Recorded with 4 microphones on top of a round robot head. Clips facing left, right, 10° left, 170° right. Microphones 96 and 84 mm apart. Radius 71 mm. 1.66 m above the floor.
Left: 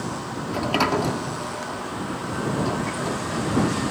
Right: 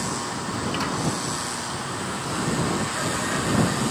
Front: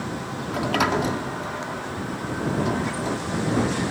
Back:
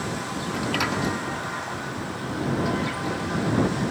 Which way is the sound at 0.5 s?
60° left.